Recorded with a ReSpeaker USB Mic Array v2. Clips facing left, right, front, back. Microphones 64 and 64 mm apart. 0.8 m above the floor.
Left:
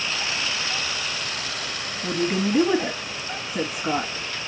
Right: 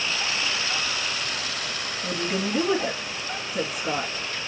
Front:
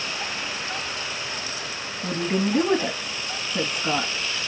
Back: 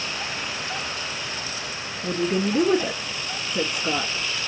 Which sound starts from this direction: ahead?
A woman speaking, at 2.0 s.